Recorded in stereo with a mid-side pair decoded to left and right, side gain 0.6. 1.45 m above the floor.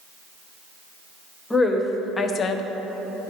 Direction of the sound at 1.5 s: 10° left.